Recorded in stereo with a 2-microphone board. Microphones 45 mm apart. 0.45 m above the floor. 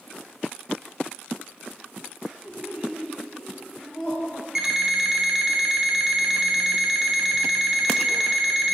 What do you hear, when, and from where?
2.5 s laughter: 30° right (ahead or behind), 1.6 m; by 4.5 s 15° left (ahead or behind), 3.5 m
4.5 s an alarm clock: 10° right (ahead or behind), 1.1 m